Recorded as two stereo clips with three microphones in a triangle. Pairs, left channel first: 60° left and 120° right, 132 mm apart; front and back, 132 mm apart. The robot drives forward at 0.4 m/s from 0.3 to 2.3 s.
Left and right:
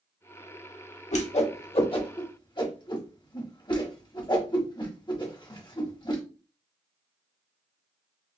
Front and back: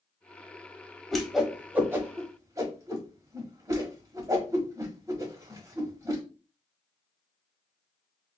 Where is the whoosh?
85° left, 1.0 m; by 6.2 s 115° left, 1.1 m.